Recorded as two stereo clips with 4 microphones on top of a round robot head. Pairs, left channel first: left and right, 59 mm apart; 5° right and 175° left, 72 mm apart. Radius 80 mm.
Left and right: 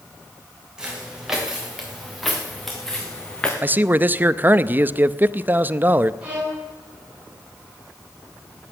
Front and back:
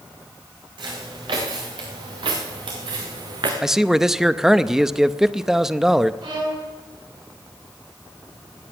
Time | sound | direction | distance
0.8 | footsteps | 170° right | 6 m
3.6 | a man speaking | 105° right | 0.6 m
6.2 | a violin | 160° right | 7 m